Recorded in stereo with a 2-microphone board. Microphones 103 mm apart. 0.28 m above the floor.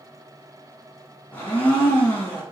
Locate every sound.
1.3 s a blender: 20° left (ahead or behind), 1.7 m